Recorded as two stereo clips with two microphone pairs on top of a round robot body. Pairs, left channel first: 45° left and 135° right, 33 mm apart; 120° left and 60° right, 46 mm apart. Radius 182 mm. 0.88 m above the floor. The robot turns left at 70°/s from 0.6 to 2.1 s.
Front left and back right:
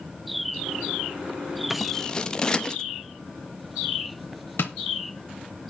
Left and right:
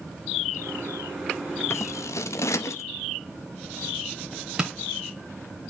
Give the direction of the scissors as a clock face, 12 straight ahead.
7 o'clock.